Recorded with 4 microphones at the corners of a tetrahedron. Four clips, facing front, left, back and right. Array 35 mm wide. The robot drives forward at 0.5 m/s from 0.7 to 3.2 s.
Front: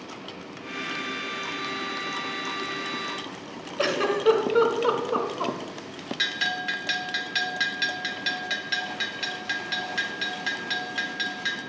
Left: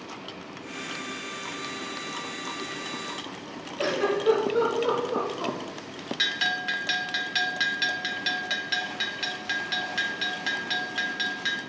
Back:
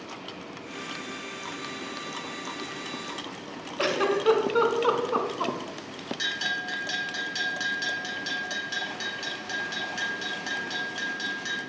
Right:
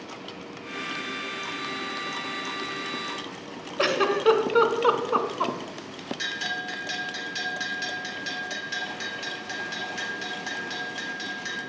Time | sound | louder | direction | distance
3.8 | a giggle | right 3 dB, front 1 dB | 90° right | 0.7 m
6.2 | a bell | left 5 dB, front 3 dB | 50° left | 0.7 m